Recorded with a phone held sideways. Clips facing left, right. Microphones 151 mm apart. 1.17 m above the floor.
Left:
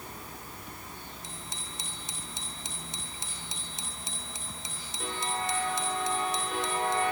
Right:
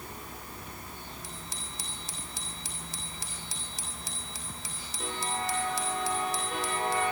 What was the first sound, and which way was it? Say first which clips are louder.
A bicycle bell: even; 20° left (ahead or behind).